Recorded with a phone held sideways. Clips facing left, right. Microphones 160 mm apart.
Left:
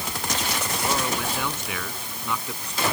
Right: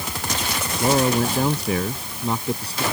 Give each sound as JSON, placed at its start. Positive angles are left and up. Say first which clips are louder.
{"t": 0.8, "sound": "a man speaking", "louder": "right 10 dB", "side_deg": -40}